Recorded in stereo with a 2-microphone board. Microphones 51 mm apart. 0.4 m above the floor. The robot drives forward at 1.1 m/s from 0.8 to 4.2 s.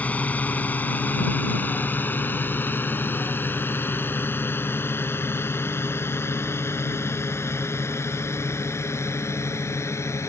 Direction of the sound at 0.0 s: 30° left (ahead or behind).